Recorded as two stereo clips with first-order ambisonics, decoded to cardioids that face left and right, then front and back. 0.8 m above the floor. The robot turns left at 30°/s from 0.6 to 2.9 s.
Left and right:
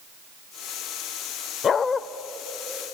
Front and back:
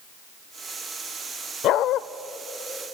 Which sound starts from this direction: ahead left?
A dog barking, at 1.6 s.